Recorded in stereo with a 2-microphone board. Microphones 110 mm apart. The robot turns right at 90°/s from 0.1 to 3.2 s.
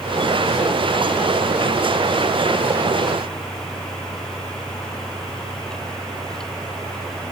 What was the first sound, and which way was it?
Only background noise.